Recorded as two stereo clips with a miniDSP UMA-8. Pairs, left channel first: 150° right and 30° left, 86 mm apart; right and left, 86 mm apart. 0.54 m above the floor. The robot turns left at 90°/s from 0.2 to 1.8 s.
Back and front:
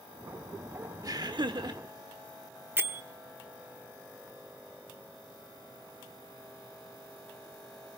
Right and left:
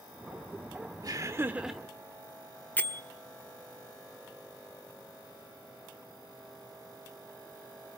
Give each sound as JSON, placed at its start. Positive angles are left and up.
{"t": 1.0, "sound": "laughter", "azimuth_deg": 65, "distance_m": 1.1}
{"t": 2.8, "sound": "a bell", "azimuth_deg": -25, "distance_m": 1.1}